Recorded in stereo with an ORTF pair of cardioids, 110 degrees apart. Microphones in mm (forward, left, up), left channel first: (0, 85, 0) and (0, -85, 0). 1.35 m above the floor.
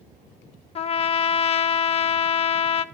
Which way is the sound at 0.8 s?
40° left.